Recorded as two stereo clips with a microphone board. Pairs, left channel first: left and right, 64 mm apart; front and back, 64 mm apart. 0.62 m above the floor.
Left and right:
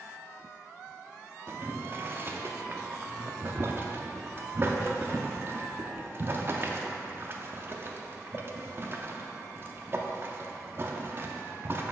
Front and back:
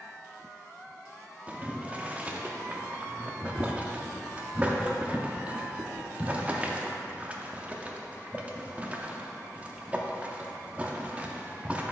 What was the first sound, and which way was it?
Boiling, 120° right.